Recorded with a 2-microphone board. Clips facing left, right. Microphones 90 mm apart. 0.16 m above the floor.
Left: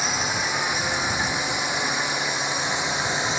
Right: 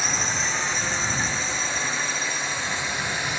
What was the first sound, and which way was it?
A drone, 10° left (ahead or behind).